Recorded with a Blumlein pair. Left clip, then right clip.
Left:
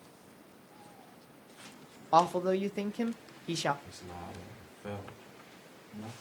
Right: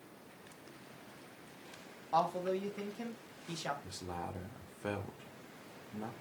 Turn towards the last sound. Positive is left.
turn(degrees=-15)